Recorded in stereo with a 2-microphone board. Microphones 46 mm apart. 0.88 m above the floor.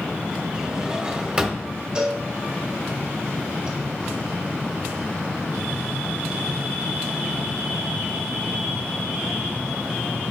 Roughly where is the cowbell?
Right.